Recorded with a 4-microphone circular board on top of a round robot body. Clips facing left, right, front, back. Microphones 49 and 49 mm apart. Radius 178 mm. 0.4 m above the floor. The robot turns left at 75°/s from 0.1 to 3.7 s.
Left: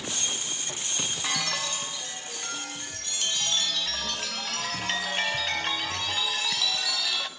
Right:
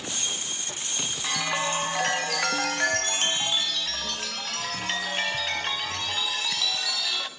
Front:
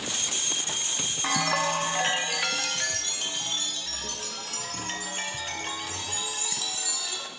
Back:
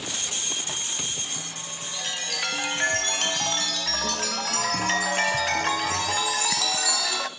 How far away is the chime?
About 0.8 m.